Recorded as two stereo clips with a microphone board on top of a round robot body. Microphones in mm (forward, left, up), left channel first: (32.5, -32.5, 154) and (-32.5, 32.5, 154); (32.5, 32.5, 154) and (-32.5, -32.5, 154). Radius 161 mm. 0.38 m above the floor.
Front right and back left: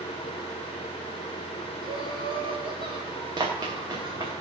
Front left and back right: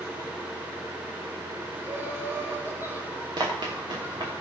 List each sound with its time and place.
1.8 s laughter: 160° left, 4.5 m
3.4 s running footsteps: straight behind, 3 m